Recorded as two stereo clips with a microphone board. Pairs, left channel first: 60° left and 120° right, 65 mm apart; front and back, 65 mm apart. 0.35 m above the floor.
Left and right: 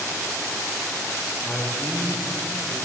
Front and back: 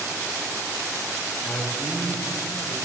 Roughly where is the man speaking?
Ahead right.